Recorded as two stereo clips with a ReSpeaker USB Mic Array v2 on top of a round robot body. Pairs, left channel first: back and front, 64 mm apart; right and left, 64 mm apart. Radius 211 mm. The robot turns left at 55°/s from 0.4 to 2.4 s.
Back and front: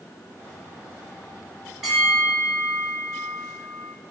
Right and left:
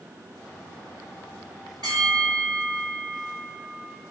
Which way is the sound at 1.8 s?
80° left.